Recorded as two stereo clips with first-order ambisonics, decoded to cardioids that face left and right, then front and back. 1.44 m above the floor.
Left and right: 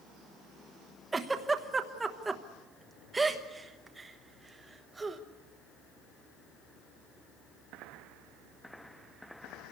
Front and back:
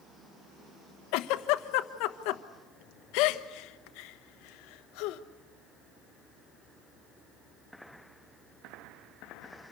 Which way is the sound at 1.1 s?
15° right.